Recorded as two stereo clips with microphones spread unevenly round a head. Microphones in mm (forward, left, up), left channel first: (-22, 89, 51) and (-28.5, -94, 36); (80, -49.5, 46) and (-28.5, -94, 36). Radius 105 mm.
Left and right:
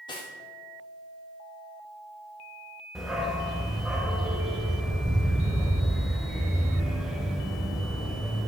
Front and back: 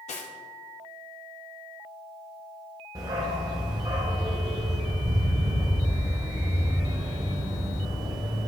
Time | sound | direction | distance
0.1 | cutlery clinking | 25° left | 1.7 m
3.0 | a dog barking | 170° left | 1.6 m